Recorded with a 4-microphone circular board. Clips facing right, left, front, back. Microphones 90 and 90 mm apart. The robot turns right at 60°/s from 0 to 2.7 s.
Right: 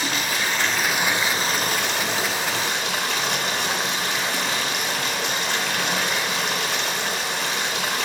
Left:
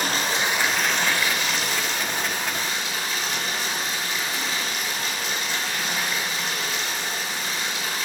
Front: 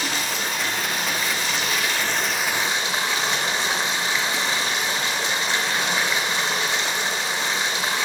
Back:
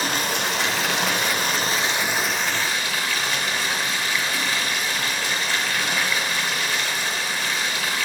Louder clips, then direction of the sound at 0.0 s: Left 1 dB, back 2 dB; 130° left.